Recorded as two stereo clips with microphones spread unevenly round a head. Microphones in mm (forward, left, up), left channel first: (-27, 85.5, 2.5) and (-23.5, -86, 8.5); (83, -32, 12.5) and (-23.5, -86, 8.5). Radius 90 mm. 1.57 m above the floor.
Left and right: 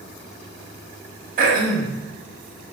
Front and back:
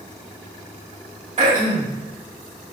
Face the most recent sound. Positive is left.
turn(degrees=-130)